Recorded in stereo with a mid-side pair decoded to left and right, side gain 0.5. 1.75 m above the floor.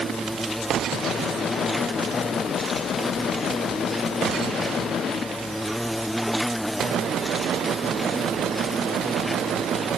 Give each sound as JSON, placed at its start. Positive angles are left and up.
{"t": 0.0, "sound": "an insect", "azimuth_deg": 0}